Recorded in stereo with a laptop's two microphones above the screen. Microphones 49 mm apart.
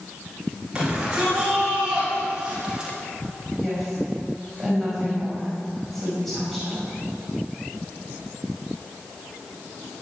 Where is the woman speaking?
Centre (ahead or behind), 6 m.